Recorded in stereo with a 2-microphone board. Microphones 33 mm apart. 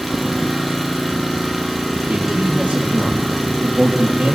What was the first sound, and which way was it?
An engine running, 5° right (ahead or behind).